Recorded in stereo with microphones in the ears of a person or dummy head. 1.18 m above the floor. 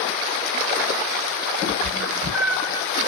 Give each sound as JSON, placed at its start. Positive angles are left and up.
{"t": 1.6, "sound": "a cat meowing", "side_deg": -35, "distance_m": 2.0}